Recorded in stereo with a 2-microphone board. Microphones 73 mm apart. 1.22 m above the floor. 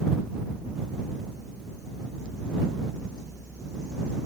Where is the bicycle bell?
No bicycle bell in this recording.